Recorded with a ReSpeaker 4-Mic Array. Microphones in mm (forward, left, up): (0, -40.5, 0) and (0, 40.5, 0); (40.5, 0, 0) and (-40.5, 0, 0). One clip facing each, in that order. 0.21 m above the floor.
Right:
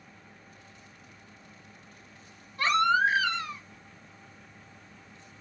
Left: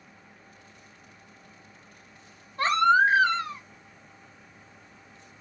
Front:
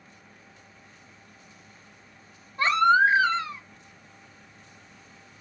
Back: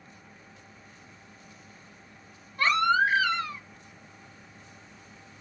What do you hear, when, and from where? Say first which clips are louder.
2.6 s a baby crying: left 3 dB, front 4 dB; 55° left, 0.8 m